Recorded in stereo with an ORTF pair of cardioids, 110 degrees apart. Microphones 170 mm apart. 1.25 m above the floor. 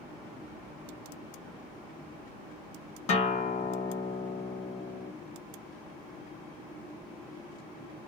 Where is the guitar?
45° left, 1.2 m.